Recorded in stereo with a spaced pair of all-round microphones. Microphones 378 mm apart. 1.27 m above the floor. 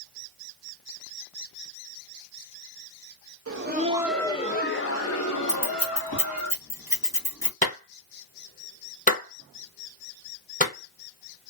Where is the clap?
20° left (ahead or behind), 1.1 m.